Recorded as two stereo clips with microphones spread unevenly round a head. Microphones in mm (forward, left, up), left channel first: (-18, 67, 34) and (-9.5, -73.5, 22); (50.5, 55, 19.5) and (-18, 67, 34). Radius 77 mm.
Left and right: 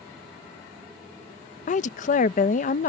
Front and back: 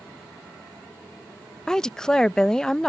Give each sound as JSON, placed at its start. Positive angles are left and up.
{"t": 1.7, "sound": "a woman speaking", "azimuth_deg": 65}